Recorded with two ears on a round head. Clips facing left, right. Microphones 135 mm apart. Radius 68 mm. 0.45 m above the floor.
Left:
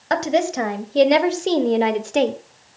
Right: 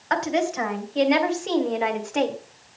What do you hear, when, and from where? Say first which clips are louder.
0.1 s a woman speaking: left 4 dB; 45° left (ahead or behind), 3 m; by 2.4 s 35° left (ahead or behind), 1.6 m